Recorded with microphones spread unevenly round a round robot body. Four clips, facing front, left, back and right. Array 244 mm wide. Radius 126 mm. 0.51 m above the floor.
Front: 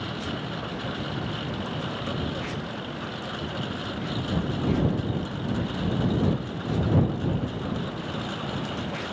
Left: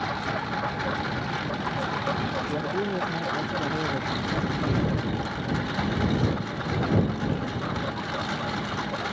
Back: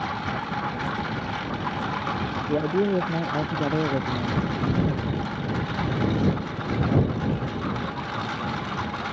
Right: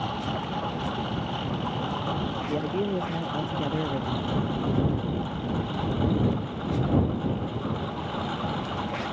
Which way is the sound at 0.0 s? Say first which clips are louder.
Left 1 dB, back 4 dB; 105° left.